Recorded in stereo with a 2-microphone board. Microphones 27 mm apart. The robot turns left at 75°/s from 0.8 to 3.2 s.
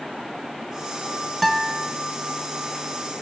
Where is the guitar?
175° left, 0.7 m; by 1.9 s 140° left, 0.7 m.